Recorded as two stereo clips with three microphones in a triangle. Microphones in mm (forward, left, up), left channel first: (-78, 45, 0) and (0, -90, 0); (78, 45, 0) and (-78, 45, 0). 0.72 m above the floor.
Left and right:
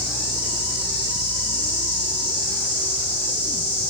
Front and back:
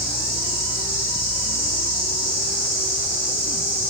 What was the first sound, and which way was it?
An insect, 75° left.